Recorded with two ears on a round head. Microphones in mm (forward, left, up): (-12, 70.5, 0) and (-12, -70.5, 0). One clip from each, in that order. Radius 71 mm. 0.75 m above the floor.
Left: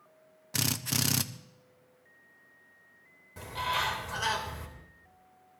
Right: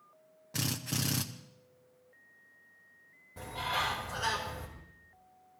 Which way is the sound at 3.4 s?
55° left (ahead or behind).